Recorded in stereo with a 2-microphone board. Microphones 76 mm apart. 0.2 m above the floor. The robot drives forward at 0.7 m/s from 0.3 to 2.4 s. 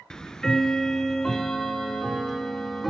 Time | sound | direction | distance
0.1 | ticking | 10° left (ahead or behind) | 0.7 m